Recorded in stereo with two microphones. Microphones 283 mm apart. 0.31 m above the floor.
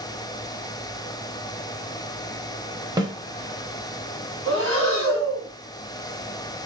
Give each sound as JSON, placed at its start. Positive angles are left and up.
{"t": 3.0, "sound": "a snare drum", "side_deg": -15, "distance_m": 0.7}
{"t": 4.5, "sound": "breathing", "side_deg": -50, "distance_m": 2.0}